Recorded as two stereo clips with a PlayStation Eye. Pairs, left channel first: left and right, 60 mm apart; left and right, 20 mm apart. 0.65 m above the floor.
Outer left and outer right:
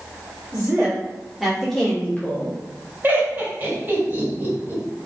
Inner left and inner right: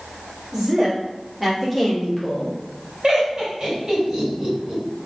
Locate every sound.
0.5 s a woman speaking: 30° right (ahead or behind), 1.3 m; by 2.6 s 35° left (ahead or behind), 1.3 m
3.0 s laughter: 35° right (ahead or behind), 1.9 m